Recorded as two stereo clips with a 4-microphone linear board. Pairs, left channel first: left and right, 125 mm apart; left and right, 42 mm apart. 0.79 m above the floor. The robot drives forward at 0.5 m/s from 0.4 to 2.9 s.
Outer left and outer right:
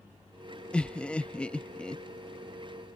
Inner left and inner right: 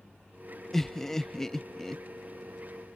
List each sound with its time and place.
0.7 s laughter: 10° left (ahead or behind)